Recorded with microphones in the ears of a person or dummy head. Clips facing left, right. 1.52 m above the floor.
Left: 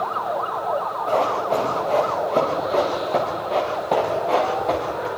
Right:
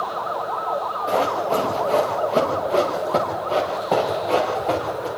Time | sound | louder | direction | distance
1.1 | running footsteps | even | 5° right (ahead or behind) | 6.5 m